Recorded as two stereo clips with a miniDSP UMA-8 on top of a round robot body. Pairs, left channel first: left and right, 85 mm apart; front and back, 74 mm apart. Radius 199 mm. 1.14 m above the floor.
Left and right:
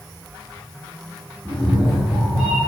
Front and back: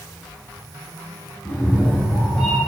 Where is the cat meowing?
25° right, 1.2 m; by 2.6 s 85° right, 1.6 m.